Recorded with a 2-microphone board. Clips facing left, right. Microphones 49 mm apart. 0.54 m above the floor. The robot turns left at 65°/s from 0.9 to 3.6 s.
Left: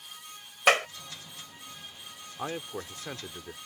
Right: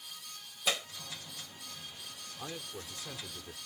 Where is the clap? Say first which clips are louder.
Left 12 dB; 70° left (ahead or behind).